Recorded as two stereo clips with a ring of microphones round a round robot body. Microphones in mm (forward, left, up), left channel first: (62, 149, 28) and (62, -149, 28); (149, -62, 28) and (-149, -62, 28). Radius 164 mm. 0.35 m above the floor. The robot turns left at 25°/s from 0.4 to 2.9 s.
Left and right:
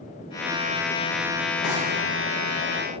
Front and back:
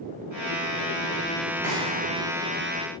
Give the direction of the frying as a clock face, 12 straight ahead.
7 o'clock.